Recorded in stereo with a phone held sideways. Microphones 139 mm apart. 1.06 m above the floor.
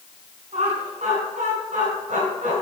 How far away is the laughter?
About 3.5 m.